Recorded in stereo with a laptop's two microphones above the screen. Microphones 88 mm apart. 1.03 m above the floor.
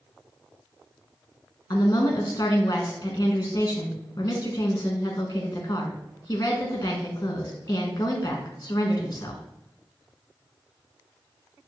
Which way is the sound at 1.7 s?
40° left (ahead or behind).